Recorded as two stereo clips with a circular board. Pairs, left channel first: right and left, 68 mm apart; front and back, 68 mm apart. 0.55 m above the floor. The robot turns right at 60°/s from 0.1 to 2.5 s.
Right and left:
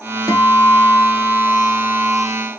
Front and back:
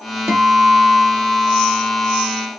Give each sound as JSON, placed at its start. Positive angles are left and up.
{"t": 0.3, "sound": "a guitar", "azimuth_deg": -125, "distance_m": 0.7}